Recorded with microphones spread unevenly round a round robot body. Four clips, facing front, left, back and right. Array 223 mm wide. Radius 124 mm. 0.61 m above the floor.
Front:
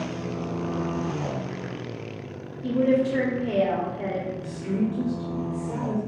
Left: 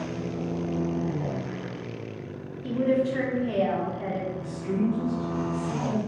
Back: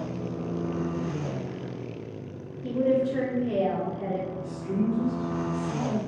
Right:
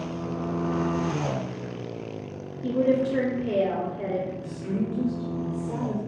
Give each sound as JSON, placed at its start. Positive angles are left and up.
{"t": 2.6, "sound": "a woman speaking", "azimuth_deg": -55, "distance_m": 1.8}
{"t": 4.4, "sound": "a woman speaking", "azimuth_deg": -30, "distance_m": 1.8}